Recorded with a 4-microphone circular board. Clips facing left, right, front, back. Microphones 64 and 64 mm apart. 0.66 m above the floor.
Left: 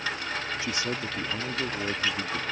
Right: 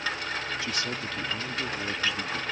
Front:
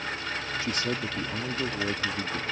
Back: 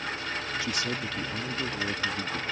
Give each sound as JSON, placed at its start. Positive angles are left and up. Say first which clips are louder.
{"t": 0.6, "sound": "a man speaking", "louder": "left 1 dB, front 1 dB", "azimuth_deg": 30}